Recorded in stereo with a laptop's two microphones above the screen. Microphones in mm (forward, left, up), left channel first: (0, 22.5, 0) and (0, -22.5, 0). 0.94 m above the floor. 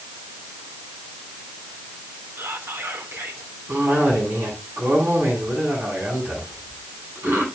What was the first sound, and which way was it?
Whispering, 65° right (ahead or behind).